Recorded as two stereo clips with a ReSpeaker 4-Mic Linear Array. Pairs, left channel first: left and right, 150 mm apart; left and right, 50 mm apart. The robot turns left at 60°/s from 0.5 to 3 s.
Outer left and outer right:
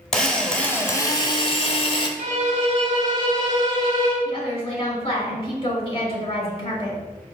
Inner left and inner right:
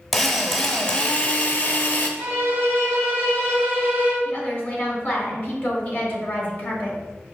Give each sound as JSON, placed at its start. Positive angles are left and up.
{"t": 0.1, "sound": "a drill", "azimuth_deg": 170, "distance_m": 0.6}
{"t": 2.2, "sound": "a violin", "azimuth_deg": -95, "distance_m": 1.3}
{"t": 4.2, "sound": "a woman speaking", "side_deg": 35, "distance_m": 1.3}